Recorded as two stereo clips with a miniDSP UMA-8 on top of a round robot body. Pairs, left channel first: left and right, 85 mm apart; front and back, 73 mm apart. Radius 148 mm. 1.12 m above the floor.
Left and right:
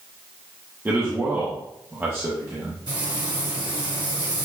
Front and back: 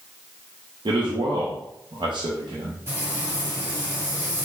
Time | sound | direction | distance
0.8 | a man speaking | 155° right | 0.9 m
2.9 | frying | 120° right | 2.5 m